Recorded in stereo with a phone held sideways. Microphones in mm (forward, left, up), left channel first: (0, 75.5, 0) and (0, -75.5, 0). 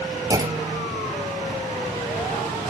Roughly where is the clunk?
Right.